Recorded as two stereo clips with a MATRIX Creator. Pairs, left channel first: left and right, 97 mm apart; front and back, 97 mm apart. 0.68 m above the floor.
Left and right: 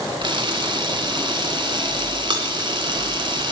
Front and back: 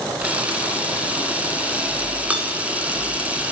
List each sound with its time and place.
0.2 s a camera shutter: 105° right, 1.2 m